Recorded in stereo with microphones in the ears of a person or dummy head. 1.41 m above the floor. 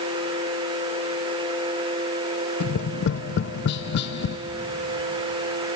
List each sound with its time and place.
2.6 s tapping: 70° left (ahead or behind), 0.6 m